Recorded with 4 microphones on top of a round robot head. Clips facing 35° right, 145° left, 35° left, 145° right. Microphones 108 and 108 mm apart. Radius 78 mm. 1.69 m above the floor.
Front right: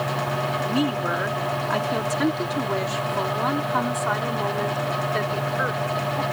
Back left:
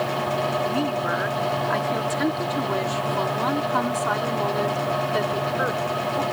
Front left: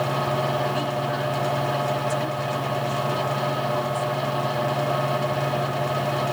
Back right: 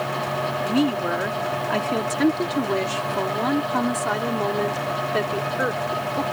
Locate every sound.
0.6 s a woman speaking: 110° right; by 6.2 s 135° right